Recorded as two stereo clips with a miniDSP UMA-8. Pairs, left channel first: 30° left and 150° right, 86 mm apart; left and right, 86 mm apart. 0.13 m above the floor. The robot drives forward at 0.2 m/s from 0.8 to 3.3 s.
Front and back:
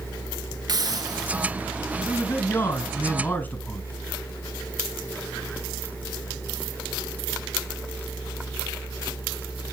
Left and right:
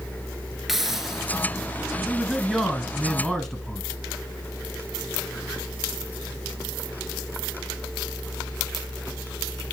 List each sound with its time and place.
0.7 s a hiss: 175° right, 1.0 m
2.0 s a man speaking: 10° left, 1.3 m